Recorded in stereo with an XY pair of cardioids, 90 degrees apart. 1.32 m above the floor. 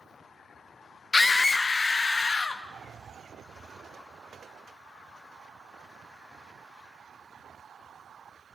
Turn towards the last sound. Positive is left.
turn(degrees=40)